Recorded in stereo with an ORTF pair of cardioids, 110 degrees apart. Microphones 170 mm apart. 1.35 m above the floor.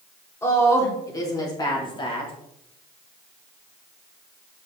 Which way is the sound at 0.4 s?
15° left.